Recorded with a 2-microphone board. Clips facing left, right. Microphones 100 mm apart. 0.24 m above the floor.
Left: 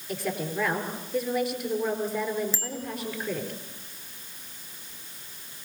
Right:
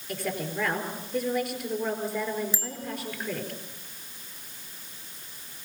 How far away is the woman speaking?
About 5 m.